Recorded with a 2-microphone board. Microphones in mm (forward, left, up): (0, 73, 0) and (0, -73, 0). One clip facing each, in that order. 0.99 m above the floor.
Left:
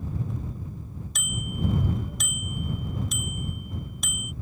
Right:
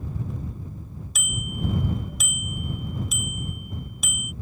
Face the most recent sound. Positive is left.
turn(degrees=-5)  # may be behind; listen again after turning